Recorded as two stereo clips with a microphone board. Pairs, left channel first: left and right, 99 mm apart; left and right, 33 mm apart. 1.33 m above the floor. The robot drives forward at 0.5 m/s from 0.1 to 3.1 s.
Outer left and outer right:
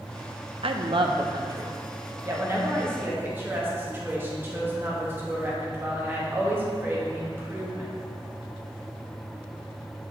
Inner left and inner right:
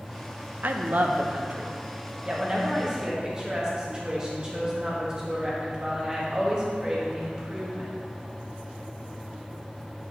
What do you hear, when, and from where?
0.6 s a woman speaking: 65° right (ahead or behind), 0.6 m; by 7.9 s 20° right (ahead or behind), 1.5 m